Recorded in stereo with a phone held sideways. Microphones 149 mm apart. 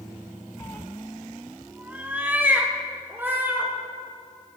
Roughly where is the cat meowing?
Centre.